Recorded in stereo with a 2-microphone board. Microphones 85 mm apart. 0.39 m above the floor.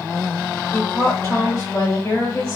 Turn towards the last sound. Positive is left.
turn(degrees=30)  # may be behind; listen again after turning